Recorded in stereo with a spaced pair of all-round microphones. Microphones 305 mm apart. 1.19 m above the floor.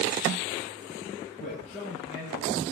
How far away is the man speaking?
About 8.5 m.